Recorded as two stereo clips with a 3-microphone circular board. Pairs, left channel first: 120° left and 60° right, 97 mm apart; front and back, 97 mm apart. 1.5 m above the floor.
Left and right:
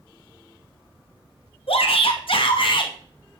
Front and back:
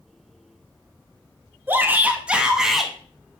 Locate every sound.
1.7 s a shout: 110° left, 2.5 m; by 2.9 s 90° left, 2 m